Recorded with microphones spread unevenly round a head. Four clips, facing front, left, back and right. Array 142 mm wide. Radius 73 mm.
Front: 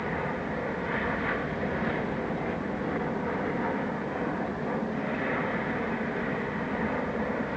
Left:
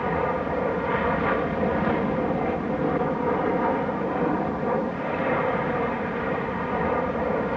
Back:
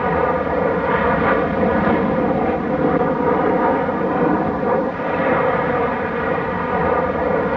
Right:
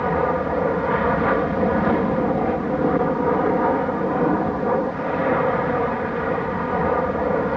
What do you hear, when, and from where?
0.0 s an aircraft: 155° right